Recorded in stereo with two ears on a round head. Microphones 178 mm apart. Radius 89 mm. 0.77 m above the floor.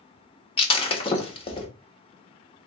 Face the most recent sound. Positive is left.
turn(degrees=30)  # may be behind; listen again after turning